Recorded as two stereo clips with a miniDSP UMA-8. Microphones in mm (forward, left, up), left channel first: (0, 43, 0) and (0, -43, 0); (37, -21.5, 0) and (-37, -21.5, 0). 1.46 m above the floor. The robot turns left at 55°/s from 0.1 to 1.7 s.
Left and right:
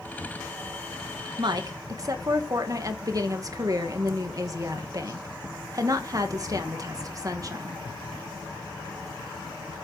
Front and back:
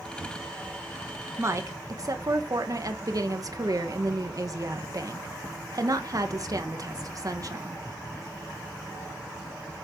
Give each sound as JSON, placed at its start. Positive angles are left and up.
{"t": 1.4, "sound": "a woman speaking", "azimuth_deg": -120, "distance_m": 1.6}